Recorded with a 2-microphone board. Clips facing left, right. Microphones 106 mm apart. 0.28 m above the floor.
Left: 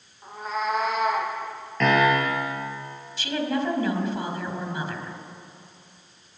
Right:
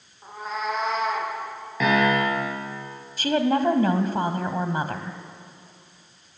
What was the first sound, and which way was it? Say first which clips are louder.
A cat meowing: left 1 dB; centre (ahead or behind).